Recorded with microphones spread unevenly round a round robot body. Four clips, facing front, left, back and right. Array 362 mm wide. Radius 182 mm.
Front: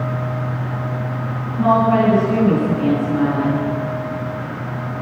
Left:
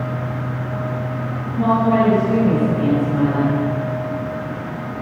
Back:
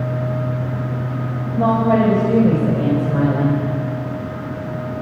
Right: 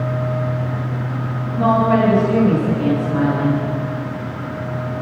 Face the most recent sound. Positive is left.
turn(degrees=180)